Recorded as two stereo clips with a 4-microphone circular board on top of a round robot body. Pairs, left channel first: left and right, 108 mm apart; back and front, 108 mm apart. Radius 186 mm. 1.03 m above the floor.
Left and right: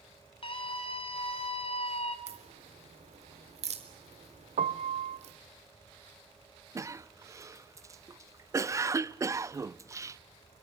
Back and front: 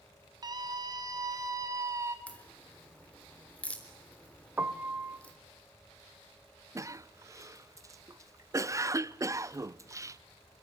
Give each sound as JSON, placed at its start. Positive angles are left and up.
{"t": 0.4, "sound": "a scream", "azimuth_deg": 55, "distance_m": 4.5}
{"t": 2.3, "sound": "a crack", "azimuth_deg": -100, "distance_m": 4.0}
{"t": 4.6, "sound": "a piano", "azimuth_deg": -75, "distance_m": 0.6}
{"t": 6.8, "sound": "a cough", "azimuth_deg": -45, "distance_m": 0.9}